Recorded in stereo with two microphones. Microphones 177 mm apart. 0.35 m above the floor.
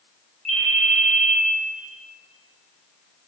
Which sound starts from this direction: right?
A ringtone, at 0.5 s.